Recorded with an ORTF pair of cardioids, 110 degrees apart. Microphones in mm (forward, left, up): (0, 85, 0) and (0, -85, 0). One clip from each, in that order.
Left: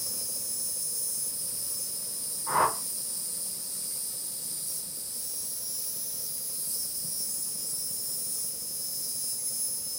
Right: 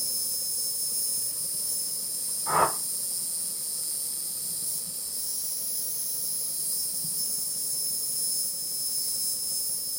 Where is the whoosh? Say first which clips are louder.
Right 1 dB; 35° right, 0.9 m.